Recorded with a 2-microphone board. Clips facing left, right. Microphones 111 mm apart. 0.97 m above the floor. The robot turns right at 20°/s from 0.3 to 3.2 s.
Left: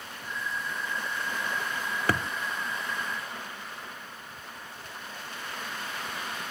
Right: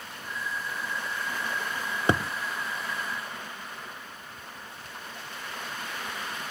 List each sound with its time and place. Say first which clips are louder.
2.1 s a thud: right 4 dB; 20° right (ahead or behind), 0.7 m